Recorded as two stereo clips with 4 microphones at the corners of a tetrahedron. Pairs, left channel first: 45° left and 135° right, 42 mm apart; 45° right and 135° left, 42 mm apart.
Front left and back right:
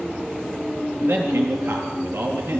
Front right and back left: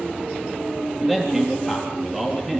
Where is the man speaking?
155° right, 4 m.